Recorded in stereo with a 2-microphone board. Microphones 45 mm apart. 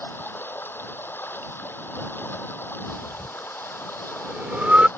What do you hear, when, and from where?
0.0 s running water: 50° left (ahead or behind)
2.9 s breathing: 30° right (ahead or behind)